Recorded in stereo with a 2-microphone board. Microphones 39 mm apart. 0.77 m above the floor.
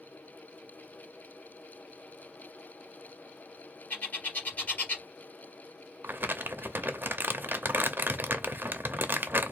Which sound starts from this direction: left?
A bird, at 3.9 s.